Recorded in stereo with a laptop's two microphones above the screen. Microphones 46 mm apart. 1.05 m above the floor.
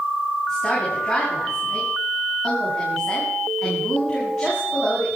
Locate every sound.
0.5 s a woman speaking: 10° left (ahead or behind), 6.5 m